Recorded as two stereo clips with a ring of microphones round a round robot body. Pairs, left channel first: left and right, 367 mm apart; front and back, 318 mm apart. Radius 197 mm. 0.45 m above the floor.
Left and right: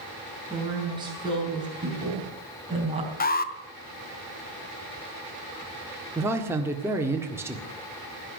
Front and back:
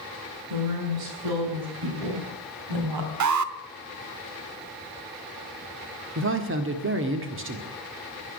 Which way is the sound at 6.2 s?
170° right.